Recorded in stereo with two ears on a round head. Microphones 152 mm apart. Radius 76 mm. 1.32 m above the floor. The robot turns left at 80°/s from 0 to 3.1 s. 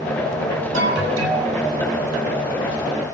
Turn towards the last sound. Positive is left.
turn(degrees=85)